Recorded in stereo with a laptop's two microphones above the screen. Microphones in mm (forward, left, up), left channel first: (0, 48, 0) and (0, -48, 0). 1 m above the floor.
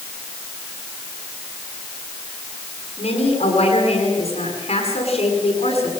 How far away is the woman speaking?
About 9 m.